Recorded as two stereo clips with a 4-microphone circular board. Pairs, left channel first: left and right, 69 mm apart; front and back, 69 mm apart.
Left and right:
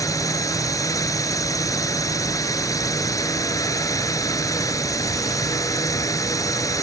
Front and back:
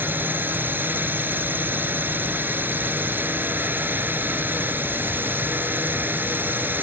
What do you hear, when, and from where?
0.0 s a drone: 120° left